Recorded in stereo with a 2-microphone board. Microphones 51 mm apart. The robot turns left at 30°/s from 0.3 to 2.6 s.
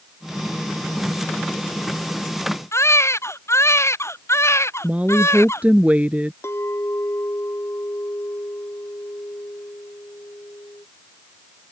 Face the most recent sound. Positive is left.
turn(degrees=65)  # may be behind; listen again after turning